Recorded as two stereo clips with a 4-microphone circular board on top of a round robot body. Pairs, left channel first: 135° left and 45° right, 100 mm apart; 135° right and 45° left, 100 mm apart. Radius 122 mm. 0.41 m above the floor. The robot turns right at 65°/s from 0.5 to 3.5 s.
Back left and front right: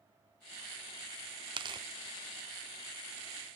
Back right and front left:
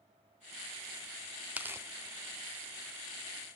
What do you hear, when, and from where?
1.6 s tearing paper: 30° right, 0.7 m; by 1.9 s 10° right, 0.7 m